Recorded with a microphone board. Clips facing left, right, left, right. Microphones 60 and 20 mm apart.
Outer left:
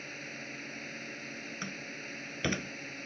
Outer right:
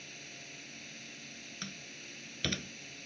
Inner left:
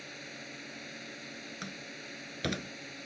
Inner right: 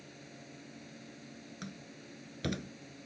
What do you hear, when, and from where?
0.0 s a drone: 40° left (ahead or behind)
1.6 s a door slam: 25° left (ahead or behind)